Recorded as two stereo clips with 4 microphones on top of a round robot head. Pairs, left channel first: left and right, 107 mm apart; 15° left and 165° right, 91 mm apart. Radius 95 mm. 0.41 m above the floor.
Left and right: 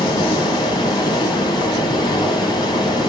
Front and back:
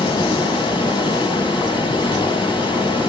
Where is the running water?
40° left, 2 m.